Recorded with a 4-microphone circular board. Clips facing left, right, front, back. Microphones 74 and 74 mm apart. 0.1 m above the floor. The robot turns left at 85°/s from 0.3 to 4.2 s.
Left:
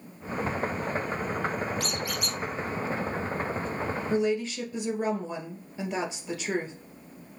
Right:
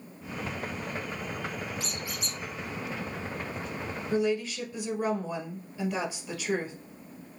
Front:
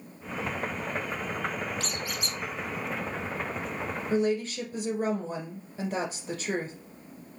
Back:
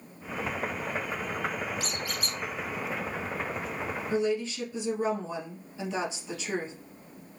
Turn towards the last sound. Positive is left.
turn(degrees=30)